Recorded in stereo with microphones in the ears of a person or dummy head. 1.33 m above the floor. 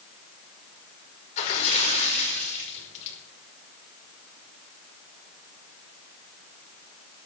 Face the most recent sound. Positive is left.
turn(degrees=40)  # may be behind; listen again after turning